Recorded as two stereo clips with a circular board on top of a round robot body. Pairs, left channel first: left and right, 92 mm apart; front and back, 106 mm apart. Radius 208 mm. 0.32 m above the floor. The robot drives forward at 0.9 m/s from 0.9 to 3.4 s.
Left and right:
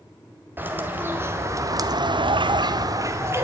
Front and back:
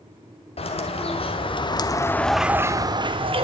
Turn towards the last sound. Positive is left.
turn(degrees=-150)